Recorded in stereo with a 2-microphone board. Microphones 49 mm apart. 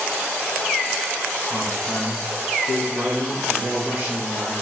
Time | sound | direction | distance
1.5 | a man speaking | 15° right (ahead or behind) | 4 m